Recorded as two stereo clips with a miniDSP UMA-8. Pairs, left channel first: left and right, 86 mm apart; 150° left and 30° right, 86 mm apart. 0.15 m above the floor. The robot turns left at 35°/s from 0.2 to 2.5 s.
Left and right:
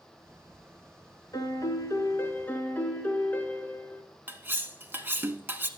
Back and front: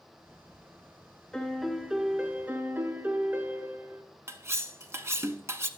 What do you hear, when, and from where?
1.3 s a piano: 70° left, 0.9 m; by 4.0 s 30° left, 0.9 m
4.3 s cutlery clinking: 45° right, 0.7 m